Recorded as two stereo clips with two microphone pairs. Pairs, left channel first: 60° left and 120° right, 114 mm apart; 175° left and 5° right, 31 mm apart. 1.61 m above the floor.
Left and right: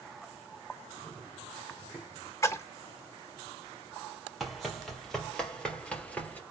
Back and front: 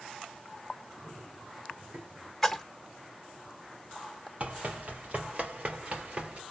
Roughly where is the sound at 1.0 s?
Ahead right.